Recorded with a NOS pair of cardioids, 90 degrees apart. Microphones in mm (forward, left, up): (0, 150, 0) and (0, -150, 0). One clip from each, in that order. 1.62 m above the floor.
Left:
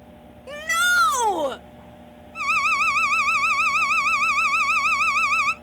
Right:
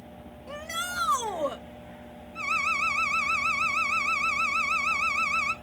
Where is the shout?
60° left, 0.7 m.